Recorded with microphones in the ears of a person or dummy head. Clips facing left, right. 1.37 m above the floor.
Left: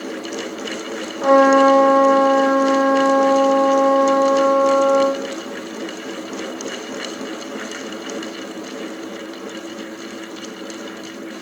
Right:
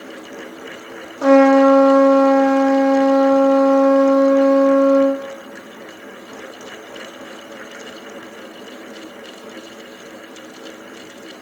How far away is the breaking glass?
No breaking glass in this recording.